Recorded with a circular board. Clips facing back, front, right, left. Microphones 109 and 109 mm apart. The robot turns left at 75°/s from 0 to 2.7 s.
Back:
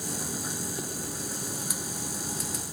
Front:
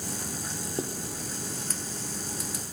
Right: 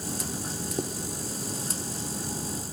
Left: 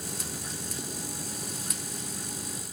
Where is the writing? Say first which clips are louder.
Front 4 dB, right 10 dB; 60° right, 1.8 m; by 0.9 s 70° right, 1.8 m.